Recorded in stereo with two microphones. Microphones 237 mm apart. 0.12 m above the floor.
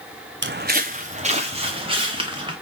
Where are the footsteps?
50° right (ahead or behind), 0.6 m; by 2.5 s 20° right (ahead or behind), 2 m.